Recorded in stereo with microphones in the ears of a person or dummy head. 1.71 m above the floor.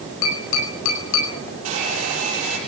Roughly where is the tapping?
Left.